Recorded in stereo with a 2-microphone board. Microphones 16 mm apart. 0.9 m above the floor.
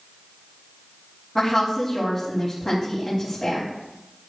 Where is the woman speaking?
40° left (ahead or behind), 5 m.